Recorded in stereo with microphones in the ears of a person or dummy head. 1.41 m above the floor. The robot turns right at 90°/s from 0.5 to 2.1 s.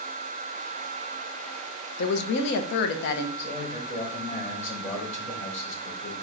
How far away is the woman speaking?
About 1.0 m.